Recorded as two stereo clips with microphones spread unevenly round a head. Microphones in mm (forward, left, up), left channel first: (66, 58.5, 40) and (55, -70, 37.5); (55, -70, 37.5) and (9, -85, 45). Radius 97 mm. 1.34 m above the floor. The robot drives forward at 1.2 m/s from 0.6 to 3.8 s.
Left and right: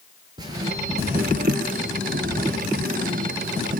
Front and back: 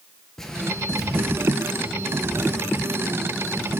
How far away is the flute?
No flute in this recording.